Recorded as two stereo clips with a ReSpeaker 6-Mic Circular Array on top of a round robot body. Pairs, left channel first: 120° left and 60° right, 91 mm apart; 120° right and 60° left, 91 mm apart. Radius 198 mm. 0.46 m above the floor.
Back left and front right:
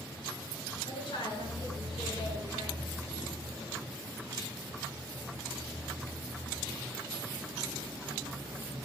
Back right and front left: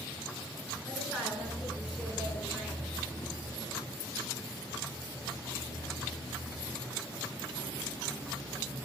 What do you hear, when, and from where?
0.8 s a woman speaking: 145° left, 7.5 m